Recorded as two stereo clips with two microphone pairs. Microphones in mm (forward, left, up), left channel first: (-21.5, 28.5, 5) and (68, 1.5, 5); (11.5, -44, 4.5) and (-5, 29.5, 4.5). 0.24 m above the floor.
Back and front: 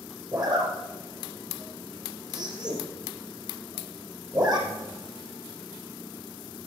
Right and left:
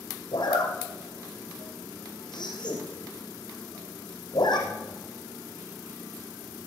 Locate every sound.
0.3 s a zipper: 60° right, 4.5 m